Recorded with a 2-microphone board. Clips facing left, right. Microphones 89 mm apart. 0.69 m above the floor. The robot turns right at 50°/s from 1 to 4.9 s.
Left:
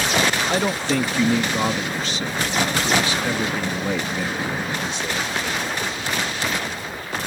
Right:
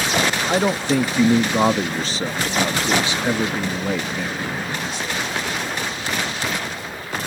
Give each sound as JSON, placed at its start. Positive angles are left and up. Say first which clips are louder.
{"t": 0.5, "sound": "a man speaking", "louder": "right 2 dB", "azimuth_deg": -150}